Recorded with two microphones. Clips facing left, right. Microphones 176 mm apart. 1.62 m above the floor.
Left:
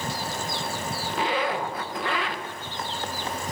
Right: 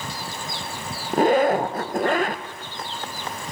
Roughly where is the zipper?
Right.